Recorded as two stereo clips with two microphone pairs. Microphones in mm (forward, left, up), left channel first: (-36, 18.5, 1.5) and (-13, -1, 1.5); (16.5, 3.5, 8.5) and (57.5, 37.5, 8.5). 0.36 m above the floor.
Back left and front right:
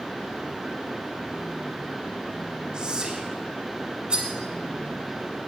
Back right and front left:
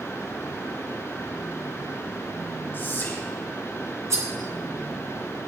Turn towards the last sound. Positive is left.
turn(degrees=20)